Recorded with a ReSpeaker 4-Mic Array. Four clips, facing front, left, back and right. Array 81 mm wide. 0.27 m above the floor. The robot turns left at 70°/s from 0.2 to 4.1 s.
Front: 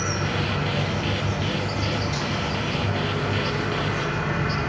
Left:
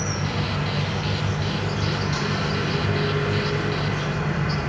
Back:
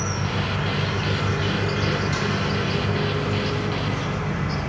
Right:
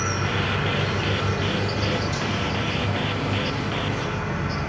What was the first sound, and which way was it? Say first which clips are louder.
An insect: right 2 dB, front 1 dB; 70° right.